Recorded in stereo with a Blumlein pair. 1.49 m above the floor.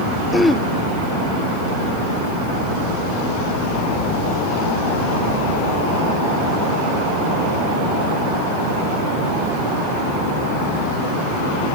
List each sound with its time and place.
0.3 s throat clearing: 5° left, 0.5 m